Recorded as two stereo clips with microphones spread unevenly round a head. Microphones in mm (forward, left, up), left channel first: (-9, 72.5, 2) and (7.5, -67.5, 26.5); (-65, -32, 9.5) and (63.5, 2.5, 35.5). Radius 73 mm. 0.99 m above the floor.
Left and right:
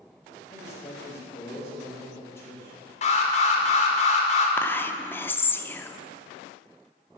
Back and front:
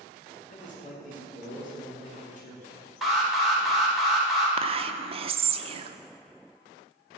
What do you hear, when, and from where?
0.5 s a man speaking: 170° left, 2.5 m
3.0 s an alarm: 110° left, 1.5 m
4.6 s whispering: 45° left, 0.6 m